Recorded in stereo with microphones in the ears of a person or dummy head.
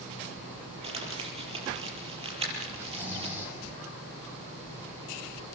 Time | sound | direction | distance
0.8 | crumpling | 30° right (ahead or behind) | 6.5 m
2.8 | snoring | 5° right (ahead or behind) | 6.5 m